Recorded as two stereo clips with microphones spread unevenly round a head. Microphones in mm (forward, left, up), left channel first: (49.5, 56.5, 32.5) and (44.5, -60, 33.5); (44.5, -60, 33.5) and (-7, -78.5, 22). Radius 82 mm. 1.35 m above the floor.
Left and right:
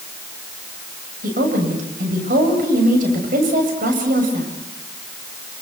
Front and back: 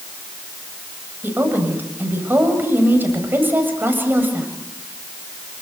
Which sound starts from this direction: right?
A woman speaking, at 1.2 s.